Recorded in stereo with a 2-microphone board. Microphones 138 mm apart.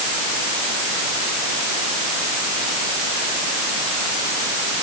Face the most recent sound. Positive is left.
No sound to turn to.